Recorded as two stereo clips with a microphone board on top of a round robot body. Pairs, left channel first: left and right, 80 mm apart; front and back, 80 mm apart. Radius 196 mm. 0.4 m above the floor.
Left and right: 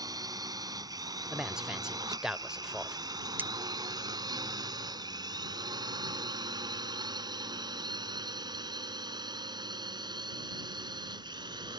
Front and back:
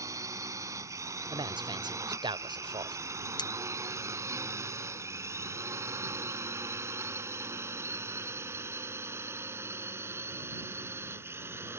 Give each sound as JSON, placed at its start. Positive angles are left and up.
{"t": 0.0, "sound": "a drone", "azimuth_deg": -130}
{"t": 1.3, "sound": "a man speaking", "azimuth_deg": -170}
{"t": 3.4, "sound": "cutlery clinking", "azimuth_deg": -25}